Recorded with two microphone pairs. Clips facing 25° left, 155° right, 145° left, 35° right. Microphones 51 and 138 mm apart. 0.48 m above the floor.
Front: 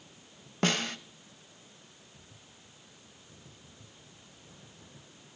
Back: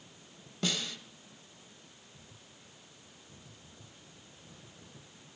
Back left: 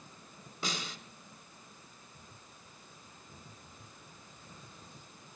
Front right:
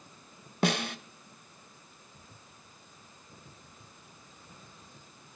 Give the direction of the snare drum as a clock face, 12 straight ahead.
1 o'clock.